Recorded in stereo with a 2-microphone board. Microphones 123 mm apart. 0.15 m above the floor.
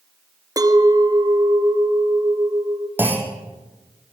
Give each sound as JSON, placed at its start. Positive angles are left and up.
{"t": 0.6, "sound": "a clink", "side_deg": -30, "distance_m": 1.6}
{"t": 3.0, "sound": "a clunk", "side_deg": -15, "distance_m": 3.5}